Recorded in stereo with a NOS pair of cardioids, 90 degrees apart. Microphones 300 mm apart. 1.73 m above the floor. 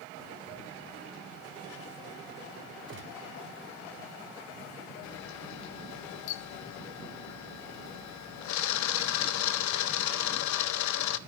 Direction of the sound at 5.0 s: 70° left.